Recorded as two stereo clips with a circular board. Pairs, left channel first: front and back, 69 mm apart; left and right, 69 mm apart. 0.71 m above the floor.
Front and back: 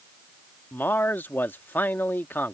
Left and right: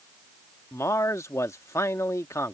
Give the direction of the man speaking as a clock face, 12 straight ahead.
10 o'clock.